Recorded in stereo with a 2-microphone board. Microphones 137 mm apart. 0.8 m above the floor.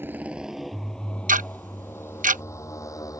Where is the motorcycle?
15° right (ahead or behind); by 3.2 s 25° left (ahead or behind).